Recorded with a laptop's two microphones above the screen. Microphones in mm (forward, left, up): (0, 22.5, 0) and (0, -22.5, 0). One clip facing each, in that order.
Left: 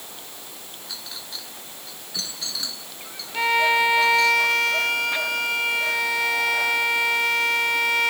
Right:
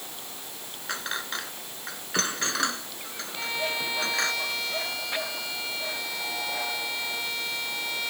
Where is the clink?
60° right (ahead or behind).